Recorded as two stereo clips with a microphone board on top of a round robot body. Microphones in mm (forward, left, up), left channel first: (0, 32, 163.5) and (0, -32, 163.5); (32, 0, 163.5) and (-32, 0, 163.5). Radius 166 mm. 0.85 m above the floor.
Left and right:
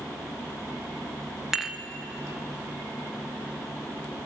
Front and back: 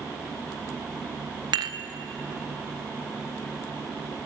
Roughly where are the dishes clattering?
Behind.